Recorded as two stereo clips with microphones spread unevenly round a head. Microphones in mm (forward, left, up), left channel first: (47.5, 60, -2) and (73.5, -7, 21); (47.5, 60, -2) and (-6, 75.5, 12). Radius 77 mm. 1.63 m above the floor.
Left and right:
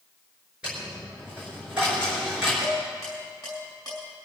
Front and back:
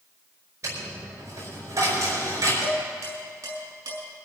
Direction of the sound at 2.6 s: 155° right.